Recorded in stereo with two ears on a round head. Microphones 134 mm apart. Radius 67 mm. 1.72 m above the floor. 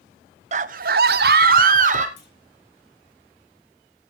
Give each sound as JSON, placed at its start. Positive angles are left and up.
{"t": 0.5, "sound": "a scream", "side_deg": -45, "distance_m": 0.5}
{"t": 2.2, "sound": "a clunk", "side_deg": 75, "distance_m": 3.0}